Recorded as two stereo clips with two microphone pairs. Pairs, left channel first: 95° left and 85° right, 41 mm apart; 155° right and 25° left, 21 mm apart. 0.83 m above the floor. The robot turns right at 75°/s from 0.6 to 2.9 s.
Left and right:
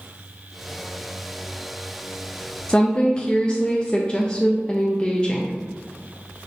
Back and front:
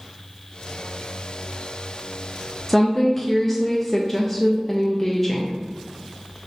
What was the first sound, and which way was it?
A woman speaking, 125° left.